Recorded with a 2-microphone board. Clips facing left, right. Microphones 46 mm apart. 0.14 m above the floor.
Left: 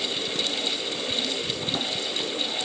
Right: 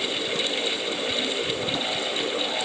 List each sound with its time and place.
Only background noise.